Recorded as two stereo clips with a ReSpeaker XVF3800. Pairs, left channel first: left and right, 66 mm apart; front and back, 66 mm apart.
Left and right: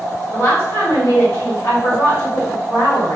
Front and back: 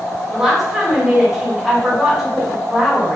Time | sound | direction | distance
0.3 | a woman speaking | 100° left | 1.8 m